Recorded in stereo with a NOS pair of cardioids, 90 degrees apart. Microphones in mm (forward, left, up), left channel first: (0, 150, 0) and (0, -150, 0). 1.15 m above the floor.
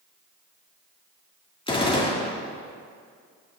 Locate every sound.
1.7 s a gunshot: 15° left, 2 m